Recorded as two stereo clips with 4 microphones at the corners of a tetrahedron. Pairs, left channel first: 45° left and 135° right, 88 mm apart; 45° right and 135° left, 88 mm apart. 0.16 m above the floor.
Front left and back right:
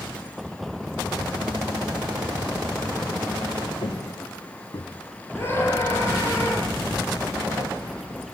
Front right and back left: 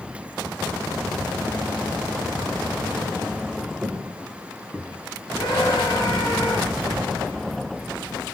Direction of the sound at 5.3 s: 15° right.